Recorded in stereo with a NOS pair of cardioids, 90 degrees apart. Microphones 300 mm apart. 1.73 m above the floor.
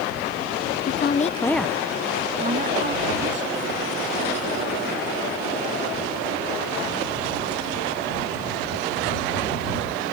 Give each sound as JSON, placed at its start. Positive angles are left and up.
{"t": 0.9, "sound": "a woman speaking", "azimuth_deg": 45}